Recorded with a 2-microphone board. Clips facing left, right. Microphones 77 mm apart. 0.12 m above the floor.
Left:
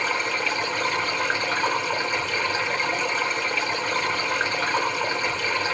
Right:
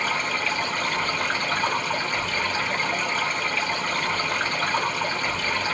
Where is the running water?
20° left (ahead or behind), 4 m.